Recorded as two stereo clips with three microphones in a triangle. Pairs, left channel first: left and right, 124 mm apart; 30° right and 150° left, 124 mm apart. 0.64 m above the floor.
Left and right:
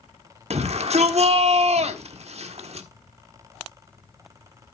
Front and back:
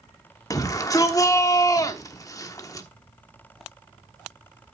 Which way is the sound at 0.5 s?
90° right.